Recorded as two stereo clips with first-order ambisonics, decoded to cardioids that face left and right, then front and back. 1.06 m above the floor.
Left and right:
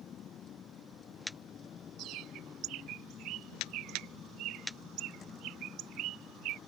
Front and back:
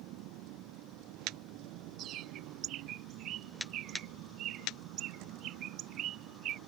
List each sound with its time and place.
0.0 s a vehicle: 150° left; by 6.7 s 155° left
2.0 s a bird: 130° right